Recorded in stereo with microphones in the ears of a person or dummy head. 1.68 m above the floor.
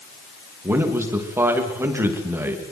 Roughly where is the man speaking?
Centre.